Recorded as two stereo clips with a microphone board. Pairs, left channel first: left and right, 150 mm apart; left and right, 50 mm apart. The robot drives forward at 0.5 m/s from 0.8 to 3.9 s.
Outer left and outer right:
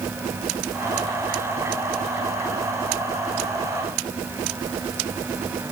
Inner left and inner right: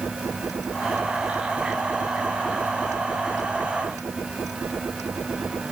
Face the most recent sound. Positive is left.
No sound to turn to.